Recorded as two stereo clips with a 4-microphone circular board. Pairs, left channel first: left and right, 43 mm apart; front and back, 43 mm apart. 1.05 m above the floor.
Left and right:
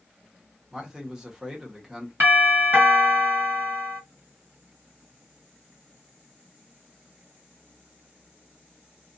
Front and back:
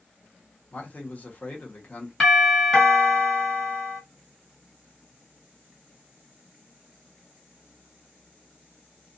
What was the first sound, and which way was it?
A man speaking, 20° right.